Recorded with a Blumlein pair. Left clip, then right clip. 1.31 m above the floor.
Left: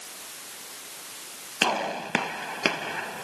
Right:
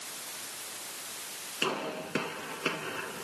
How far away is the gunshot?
About 1.2 m.